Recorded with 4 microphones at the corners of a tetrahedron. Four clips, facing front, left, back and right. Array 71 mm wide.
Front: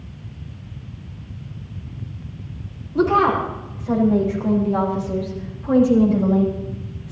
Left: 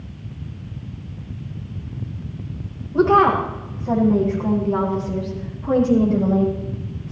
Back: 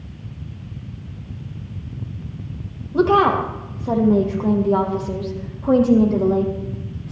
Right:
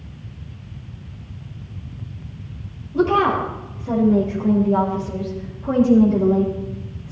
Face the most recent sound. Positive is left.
turn(degrees=-165)